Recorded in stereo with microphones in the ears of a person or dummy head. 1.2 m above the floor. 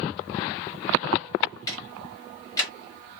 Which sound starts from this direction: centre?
Ticking, at 1.7 s.